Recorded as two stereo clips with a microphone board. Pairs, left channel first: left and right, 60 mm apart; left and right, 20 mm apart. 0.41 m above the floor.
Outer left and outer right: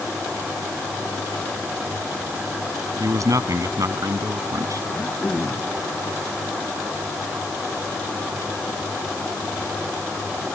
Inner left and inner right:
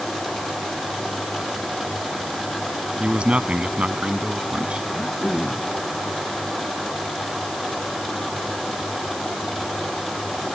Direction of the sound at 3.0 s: 70° right (ahead or behind).